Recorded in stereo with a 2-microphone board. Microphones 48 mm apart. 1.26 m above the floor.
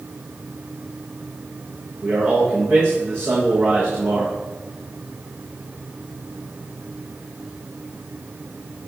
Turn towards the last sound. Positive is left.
turn(degrees=-50)  # may be behind; listen again after turning